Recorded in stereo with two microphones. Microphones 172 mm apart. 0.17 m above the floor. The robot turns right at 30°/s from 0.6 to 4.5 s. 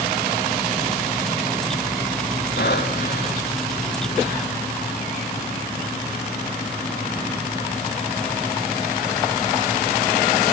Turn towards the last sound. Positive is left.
turn(degrees=155)